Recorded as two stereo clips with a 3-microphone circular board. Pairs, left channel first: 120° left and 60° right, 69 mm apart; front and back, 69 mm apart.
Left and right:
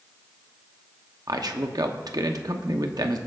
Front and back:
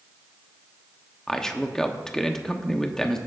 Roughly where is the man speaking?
Right.